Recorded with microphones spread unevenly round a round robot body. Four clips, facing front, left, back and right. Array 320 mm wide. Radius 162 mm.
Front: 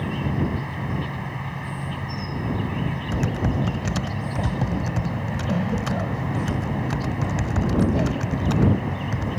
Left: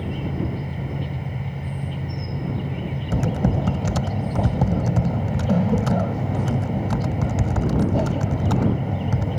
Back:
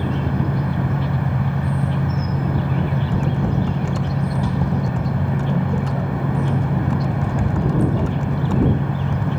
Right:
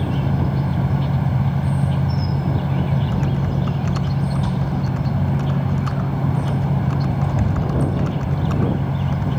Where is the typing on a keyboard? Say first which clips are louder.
Even, even; 100° left.